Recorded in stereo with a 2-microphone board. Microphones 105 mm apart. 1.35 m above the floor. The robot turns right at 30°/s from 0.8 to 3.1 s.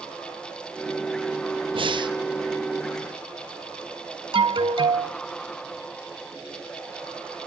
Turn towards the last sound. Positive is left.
turn(degrees=-55)  # may be behind; listen again after turning